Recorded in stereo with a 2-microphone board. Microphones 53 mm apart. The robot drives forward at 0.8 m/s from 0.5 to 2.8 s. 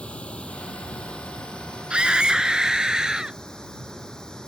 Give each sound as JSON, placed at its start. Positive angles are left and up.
{"t": 0.0, "sound": "running water", "side_deg": 25}
{"t": 1.9, "sound": "a scream", "side_deg": -20}